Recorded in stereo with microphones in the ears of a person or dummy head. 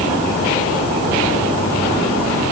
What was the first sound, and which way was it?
Only background noise.